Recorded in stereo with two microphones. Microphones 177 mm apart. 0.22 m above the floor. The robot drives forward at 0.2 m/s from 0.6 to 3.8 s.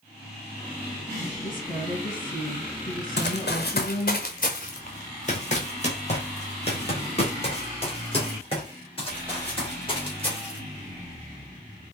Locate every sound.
1.4 s a woman speaking: 50° left (ahead or behind), 2.5 m
3.2 s running footsteps: 75° left (ahead or behind), 0.8 m; by 10.6 s 30° left (ahead or behind), 4 m